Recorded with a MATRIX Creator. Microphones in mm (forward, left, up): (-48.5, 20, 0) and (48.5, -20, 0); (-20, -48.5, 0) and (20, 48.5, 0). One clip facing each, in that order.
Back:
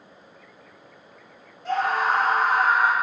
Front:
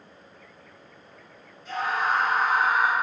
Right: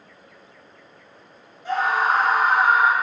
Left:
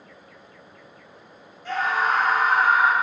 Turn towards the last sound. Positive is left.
turn(degrees=175)